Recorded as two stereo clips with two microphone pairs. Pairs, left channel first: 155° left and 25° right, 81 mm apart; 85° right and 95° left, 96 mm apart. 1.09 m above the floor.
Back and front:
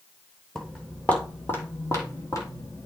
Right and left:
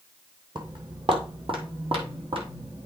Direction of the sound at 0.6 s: 70° left.